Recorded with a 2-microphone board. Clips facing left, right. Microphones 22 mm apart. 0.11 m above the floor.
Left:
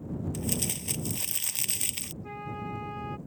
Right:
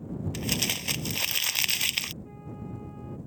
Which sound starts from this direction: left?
A flute, at 2.2 s.